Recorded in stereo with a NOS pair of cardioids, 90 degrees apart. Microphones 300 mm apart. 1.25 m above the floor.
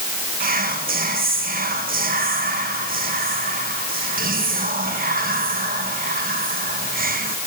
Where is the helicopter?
No helicopter in this recording.